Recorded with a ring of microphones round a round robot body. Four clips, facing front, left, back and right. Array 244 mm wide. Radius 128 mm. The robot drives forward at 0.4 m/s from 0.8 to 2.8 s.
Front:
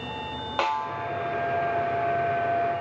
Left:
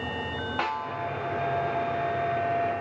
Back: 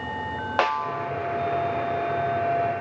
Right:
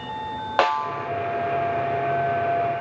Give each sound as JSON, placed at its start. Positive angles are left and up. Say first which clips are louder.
{"t": 0.6, "sound": "a snare drum", "louder": "right 10 dB, back 2 dB", "azimuth_deg": -115, "distance_m": 0.9}